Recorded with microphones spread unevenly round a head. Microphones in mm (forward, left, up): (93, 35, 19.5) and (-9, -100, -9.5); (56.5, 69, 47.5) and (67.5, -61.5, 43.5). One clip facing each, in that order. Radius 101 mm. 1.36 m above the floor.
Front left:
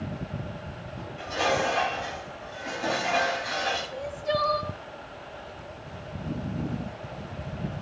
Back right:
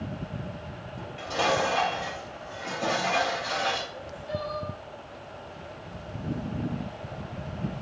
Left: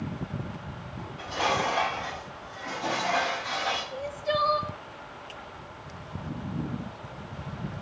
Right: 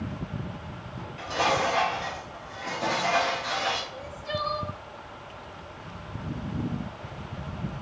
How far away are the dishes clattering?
About 5 m.